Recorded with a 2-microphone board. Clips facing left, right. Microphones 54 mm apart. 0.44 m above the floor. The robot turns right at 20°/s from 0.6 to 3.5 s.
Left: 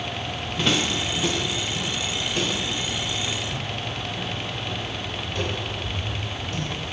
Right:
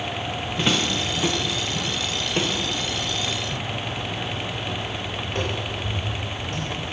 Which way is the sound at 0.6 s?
5° right (ahead or behind).